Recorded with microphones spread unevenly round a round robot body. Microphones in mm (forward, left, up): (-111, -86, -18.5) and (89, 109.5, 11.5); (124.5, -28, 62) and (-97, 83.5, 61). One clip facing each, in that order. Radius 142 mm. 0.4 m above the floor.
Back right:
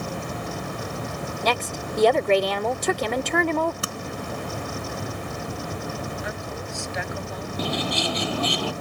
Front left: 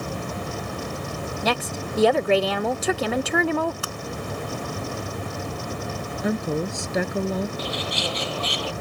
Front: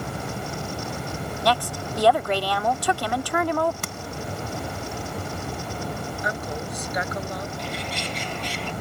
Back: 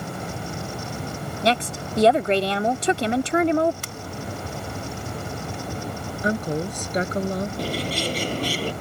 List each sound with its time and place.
1.4 s a woman speaking: 140° left
3.8 s tapping: 70° right
6.2 s a woman speaking: 95° left
7.6 s a bird: 145° right